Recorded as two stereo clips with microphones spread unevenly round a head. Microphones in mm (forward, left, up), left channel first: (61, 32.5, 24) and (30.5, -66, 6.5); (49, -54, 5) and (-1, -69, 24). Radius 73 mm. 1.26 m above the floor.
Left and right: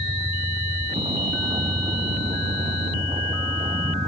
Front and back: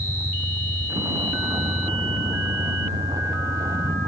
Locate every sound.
0.0 s a vehicle: 160° right